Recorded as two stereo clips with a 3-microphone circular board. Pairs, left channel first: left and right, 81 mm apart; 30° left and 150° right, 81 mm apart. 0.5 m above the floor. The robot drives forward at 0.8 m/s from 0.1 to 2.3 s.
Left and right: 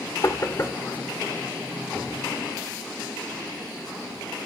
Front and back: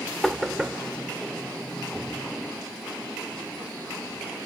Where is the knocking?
120° left, 1.0 m; by 0.8 s 140° left, 1.3 m.